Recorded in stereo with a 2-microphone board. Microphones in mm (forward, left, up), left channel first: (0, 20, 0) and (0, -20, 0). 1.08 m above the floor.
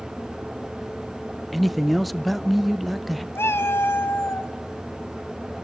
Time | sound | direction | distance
1.5 | a man speaking | centre (ahead or behind) | 0.5 m
3.4 | a cat meowing | 75° left (ahead or behind) | 2 m